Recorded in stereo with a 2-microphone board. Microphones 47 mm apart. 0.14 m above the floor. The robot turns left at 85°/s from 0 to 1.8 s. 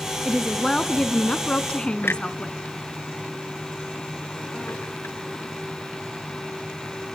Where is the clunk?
60° left (ahead or behind), 0.7 m.